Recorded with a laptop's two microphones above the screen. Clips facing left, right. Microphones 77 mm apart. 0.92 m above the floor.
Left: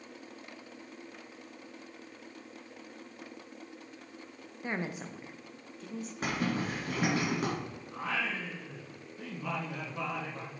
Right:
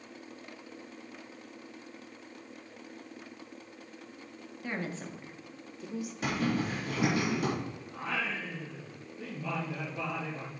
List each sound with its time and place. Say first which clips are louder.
4.6 s a woman speaking: left 1 dB; 25° left (ahead or behind), 0.6 m; by 6.1 s 10° right (ahead or behind), 1.1 m
6.2 s a zipper: right 1 dB; 40° left (ahead or behind), 4 m
7.9 s singing: left 1 dB; 85° left, 3.5 m